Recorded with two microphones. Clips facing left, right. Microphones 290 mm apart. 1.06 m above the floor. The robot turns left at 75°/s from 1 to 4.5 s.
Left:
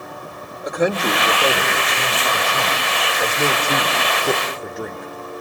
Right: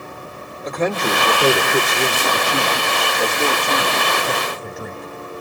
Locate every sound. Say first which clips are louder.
0.6 s a man speaking: left 1 dB; 10° left, 2.5 m; by 5.1 s 105° left, 2.5 m